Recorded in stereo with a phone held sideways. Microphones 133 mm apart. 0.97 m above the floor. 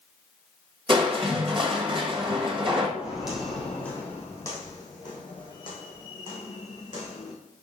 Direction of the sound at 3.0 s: 10° right (ahead or behind).